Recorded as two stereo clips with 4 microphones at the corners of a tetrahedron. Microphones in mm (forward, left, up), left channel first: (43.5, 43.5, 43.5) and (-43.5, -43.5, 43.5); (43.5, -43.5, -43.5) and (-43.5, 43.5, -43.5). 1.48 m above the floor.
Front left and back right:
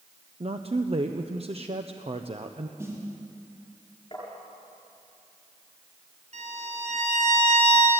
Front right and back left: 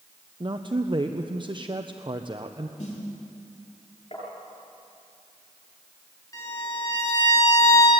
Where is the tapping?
5° right, 8 m.